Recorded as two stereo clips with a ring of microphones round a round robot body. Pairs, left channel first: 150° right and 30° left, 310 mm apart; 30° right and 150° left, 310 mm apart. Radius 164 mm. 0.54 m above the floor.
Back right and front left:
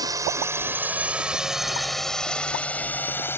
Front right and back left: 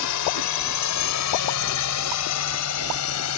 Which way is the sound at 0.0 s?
45° right.